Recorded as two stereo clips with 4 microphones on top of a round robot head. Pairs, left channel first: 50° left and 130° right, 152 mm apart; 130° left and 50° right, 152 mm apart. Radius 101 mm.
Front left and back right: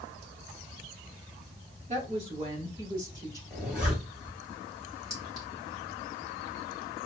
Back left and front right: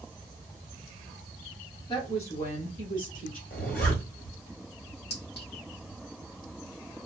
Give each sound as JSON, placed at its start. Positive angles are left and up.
{"t": 1.9, "sound": "a woman speaking", "azimuth_deg": -175, "distance_m": 2.0}
{"t": 3.5, "sound": "a zipper", "azimuth_deg": 145, "distance_m": 2.5}
{"t": 5.1, "sound": "a clink", "azimuth_deg": 140, "distance_m": 2.5}